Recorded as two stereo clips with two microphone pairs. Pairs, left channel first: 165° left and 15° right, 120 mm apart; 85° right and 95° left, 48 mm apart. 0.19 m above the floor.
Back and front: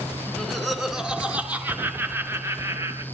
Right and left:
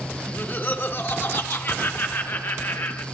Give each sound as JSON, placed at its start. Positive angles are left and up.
{"t": 0.3, "sound": "laughter", "azimuth_deg": -110, "distance_m": 2.5}